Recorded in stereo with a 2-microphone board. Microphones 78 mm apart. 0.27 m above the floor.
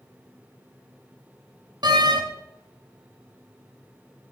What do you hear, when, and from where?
1.8 s a door slam: 60° right (ahead or behind), 1.1 m